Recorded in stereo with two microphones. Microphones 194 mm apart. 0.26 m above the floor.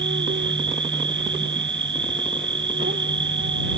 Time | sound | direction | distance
0.0 | an insect | 70° right (ahead or behind) | ?